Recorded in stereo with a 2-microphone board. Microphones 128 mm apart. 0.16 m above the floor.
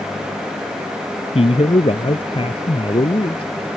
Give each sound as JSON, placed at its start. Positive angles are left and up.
{"t": 1.4, "sound": "a man speaking", "side_deg": 50}